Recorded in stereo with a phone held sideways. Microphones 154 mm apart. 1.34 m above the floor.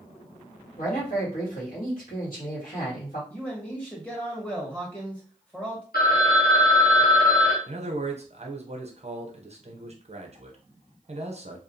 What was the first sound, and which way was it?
A man speaking, 70° left (ahead or behind).